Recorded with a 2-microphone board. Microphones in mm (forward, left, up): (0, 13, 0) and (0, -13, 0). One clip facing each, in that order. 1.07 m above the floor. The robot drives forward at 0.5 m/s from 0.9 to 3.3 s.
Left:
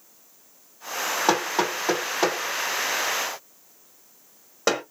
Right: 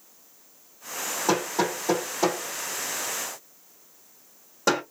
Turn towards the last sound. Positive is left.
turn(degrees=30)  # may be behind; listen again after turning